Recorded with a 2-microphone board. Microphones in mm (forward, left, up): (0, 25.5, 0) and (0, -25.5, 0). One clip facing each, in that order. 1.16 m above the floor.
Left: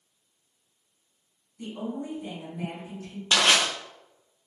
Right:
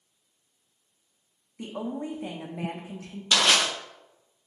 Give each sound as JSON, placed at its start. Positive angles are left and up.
{"t": 1.6, "sound": "a woman speaking", "side_deg": -80, "distance_m": 0.7}
{"t": 3.3, "sound": "crushing", "side_deg": 30, "distance_m": 0.9}